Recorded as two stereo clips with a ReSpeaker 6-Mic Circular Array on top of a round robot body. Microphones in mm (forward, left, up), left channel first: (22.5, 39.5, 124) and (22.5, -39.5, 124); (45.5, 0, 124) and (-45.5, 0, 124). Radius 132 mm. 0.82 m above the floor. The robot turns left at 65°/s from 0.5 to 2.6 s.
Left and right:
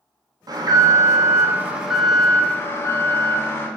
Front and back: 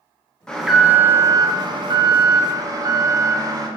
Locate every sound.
0.5 s an alarm: 80° right, 0.8 m; by 3.7 s 145° left, 0.8 m